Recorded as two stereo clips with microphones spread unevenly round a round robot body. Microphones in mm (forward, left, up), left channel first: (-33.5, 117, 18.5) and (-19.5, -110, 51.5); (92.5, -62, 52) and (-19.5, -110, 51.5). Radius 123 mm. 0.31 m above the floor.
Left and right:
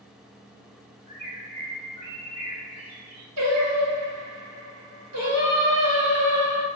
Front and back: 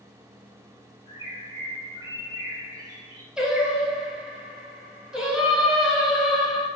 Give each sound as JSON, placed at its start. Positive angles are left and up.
{"t": 1.1, "sound": "a bird", "azimuth_deg": -125, "distance_m": 1.8}
{"t": 3.4, "sound": "singing", "azimuth_deg": -70, "distance_m": 1.5}